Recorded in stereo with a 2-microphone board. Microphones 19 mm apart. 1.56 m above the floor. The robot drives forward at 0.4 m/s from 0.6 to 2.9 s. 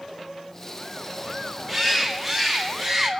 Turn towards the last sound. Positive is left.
turn(degrees=0)  # may be behind; listen again after turning